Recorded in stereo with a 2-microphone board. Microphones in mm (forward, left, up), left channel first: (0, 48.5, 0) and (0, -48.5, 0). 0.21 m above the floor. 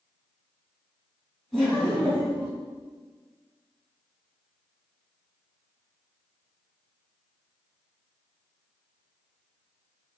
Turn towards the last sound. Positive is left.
turn(degrees=0)  # may be behind; listen again after turning